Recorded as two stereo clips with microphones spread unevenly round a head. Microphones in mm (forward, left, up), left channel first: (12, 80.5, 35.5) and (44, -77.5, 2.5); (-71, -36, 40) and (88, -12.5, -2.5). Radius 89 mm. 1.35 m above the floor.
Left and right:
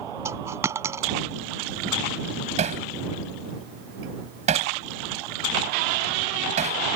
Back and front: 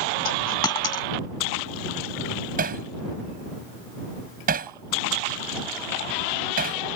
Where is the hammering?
30° right.